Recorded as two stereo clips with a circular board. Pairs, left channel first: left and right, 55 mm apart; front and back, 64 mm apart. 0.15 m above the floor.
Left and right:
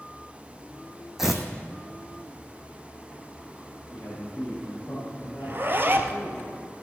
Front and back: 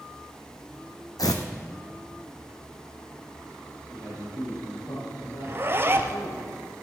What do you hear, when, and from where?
1.2 s tearing paper: 5° right, 1.4 m
3.9 s a man speaking: 30° left, 6 m
5.4 s a zipper: 130° right, 1.0 m